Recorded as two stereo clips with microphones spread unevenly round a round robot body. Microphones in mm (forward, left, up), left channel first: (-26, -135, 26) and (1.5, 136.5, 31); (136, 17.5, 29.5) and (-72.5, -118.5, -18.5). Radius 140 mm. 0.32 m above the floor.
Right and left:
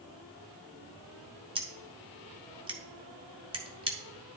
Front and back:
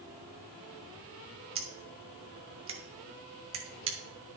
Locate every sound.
1.6 s scissors: 155° left, 2.5 m